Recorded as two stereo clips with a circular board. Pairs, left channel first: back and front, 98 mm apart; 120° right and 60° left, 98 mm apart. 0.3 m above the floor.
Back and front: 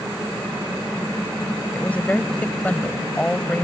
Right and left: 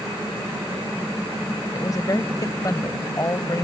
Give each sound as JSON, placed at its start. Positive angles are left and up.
{"t": 1.7, "sound": "a woman speaking", "azimuth_deg": -115}